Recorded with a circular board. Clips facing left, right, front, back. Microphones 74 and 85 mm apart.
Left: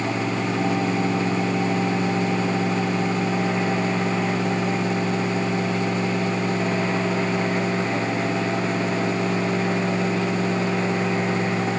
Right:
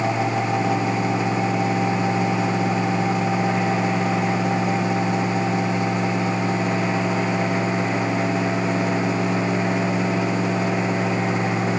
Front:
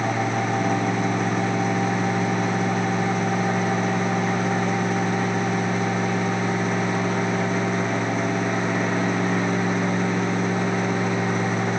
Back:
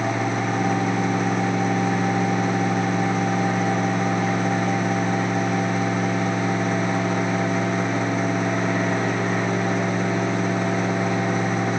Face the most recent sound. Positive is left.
No sound to turn to.